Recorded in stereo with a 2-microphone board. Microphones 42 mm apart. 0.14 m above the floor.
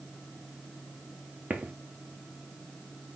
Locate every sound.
1.5 s footsteps: 35° right (ahead or behind), 1.4 m